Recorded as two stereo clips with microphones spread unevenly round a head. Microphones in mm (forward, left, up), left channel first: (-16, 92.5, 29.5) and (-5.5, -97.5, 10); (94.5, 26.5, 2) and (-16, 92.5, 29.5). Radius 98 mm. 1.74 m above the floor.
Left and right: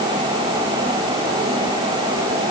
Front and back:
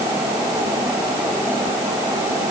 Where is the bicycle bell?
I don't hear a bicycle bell.